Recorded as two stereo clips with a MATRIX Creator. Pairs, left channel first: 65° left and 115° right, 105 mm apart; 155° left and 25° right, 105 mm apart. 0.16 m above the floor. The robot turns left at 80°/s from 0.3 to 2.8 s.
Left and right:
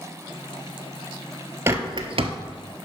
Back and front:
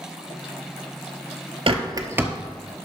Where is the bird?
50° right, 0.8 m; by 2.3 s 100° right, 0.8 m.